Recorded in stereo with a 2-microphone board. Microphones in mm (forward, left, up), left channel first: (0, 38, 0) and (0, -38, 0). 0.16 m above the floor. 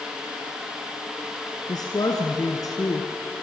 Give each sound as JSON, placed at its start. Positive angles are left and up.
{"t": 1.7, "sound": "a woman speaking", "side_deg": 60, "distance_m": 1.9}